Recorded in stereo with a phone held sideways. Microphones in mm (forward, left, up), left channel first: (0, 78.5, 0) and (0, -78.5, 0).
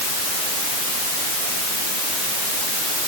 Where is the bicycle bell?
No bicycle bell in this recording.